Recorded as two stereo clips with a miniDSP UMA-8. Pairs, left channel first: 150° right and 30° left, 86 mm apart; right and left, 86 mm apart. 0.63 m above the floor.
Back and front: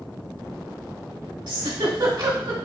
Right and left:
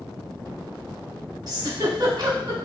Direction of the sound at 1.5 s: 50° left.